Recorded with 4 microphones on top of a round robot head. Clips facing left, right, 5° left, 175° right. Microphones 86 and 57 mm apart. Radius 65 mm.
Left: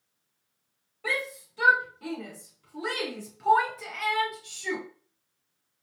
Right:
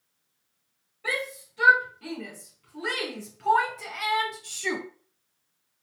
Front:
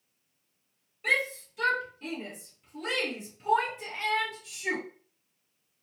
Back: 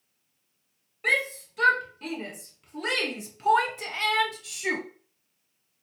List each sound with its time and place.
1.0 s a shout: 150° left, 2 m; by 4.8 s 120° right, 0.5 m